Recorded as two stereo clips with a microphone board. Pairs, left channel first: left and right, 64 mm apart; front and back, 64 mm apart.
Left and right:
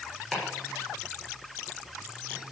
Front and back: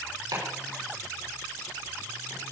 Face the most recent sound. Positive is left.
turn(degrees=180)